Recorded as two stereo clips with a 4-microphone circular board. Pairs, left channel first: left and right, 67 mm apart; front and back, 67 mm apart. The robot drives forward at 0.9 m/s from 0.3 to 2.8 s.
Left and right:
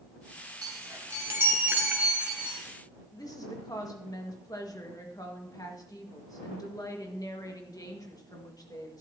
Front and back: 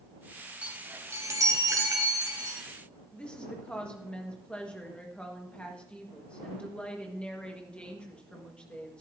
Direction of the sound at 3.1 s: 70° left.